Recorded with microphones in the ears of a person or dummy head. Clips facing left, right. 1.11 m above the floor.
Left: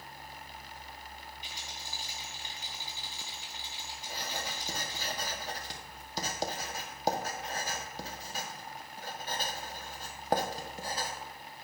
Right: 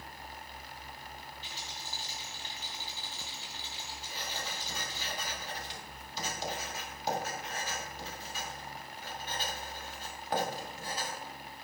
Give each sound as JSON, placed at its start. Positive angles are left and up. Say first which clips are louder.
{"t": 1.4, "sound": "a rattle", "louder": "right 1 dB", "side_deg": 20, "distance_m": 3.5}
{"t": 4.1, "sound": "writing", "louder": "left 3 dB", "side_deg": 40, "distance_m": 1.4}